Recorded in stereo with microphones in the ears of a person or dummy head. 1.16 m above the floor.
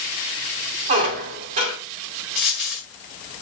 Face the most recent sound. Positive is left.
turn(degrees=-5)  # may be behind; listen again after turning